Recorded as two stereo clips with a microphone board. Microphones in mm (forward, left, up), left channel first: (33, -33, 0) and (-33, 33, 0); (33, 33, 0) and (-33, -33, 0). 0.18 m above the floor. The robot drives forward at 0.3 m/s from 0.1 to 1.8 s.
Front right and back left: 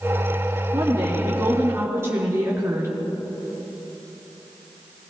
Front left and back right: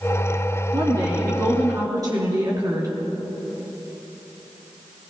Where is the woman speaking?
165° right, 2.5 m; by 2.9 s 170° right, 2.5 m.